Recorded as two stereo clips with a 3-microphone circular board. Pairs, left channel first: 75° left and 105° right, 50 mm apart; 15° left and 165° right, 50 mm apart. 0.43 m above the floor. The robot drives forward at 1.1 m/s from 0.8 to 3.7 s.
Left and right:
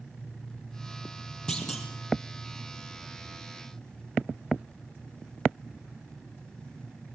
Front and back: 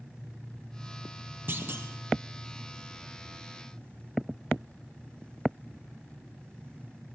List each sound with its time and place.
1.5 s a clunk: 150° left, 4 m; by 1.9 s 155° left, 4.5 m